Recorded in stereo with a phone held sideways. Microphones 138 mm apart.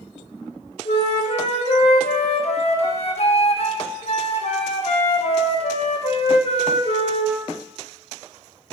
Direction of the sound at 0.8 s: 50° left (ahead or behind).